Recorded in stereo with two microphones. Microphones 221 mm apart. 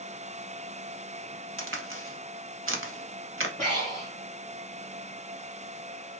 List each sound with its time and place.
1.6 s a crack: 70° right (ahead or behind), 0.8 m
3.6 s breathing: 35° right (ahead or behind), 2 m